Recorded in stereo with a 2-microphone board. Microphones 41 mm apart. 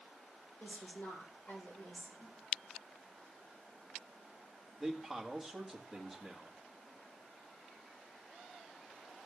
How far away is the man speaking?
About 1.9 m.